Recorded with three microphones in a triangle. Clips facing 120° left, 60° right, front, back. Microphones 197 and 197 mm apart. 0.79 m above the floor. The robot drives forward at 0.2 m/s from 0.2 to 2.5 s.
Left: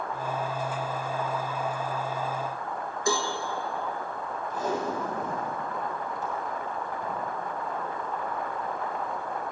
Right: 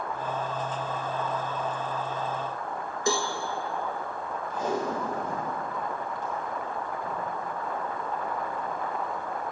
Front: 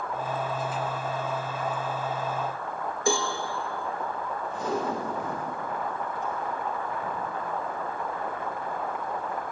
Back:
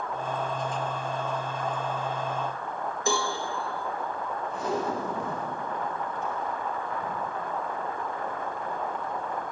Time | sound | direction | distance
3.1 | a cowbell | 60° right | 1.0 m
4.5 | tape being pulled | 165° left | 3 m